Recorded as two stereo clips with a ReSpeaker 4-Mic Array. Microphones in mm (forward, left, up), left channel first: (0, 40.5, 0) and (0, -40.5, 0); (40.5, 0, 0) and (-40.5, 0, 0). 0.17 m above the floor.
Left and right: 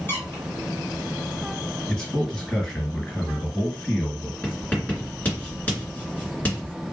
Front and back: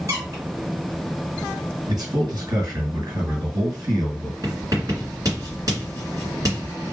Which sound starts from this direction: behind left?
A squeak, at 0.1 s.